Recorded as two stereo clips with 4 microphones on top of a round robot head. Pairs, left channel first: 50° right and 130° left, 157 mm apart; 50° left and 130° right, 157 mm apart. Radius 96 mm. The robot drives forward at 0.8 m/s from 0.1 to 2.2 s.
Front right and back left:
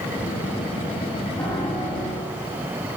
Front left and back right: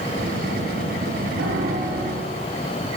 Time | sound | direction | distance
1.4 | a piano | 125° right | 2 m